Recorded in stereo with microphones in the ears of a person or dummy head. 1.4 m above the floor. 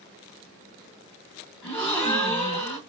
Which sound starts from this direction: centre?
A gasp, at 1.6 s.